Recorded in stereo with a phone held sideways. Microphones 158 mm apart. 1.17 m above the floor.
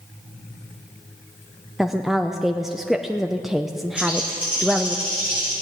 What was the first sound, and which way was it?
A woman speaking, centre (ahead or behind).